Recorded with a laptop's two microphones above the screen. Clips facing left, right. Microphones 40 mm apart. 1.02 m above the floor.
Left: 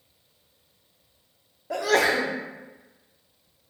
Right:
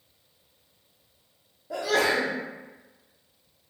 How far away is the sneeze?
About 0.5 m.